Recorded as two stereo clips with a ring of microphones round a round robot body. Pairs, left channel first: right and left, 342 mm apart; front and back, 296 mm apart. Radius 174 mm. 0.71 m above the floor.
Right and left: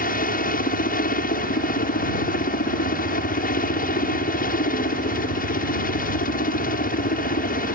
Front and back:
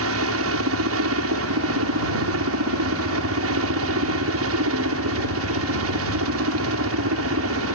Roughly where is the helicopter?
Behind right.